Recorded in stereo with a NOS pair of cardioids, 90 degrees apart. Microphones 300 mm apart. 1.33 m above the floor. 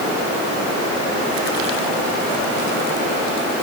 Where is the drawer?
I don't hear a drawer.